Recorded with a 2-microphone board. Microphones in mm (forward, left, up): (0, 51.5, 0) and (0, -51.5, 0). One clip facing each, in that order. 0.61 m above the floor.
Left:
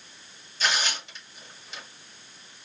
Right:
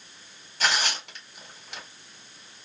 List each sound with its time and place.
0.6 s tearing paper: 60° right (ahead or behind), 1.2 m